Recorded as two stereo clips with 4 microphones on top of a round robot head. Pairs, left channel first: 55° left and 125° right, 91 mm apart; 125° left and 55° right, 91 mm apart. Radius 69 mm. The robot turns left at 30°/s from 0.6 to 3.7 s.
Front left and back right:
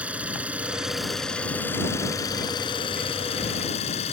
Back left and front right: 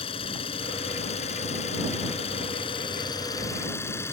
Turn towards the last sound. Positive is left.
turn(degrees=60)